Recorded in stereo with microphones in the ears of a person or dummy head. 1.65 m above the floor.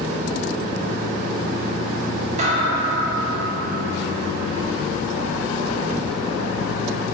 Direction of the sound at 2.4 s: 45° right (ahead or behind).